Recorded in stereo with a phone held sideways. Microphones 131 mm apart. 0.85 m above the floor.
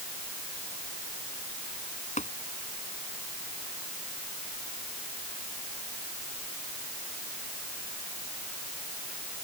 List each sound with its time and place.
2.2 s tapping: 70° left (ahead or behind)